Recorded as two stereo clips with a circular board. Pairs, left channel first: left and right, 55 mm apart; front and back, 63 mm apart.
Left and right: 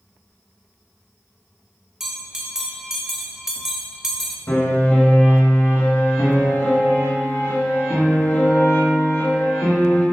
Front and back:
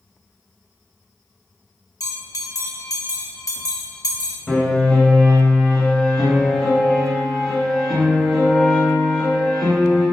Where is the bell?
10° right, 1.1 m.